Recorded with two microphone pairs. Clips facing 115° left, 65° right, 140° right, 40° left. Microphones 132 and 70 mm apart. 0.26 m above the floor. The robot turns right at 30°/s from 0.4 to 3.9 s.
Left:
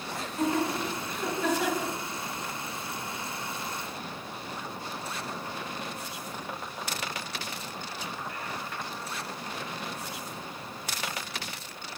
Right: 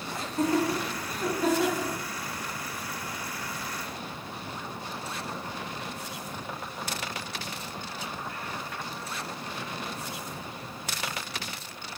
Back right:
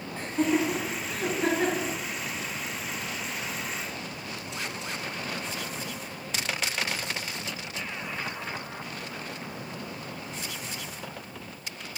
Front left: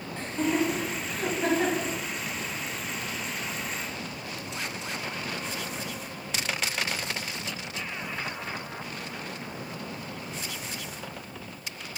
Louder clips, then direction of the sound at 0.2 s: Right 2 dB, back right 1 dB; 70° right.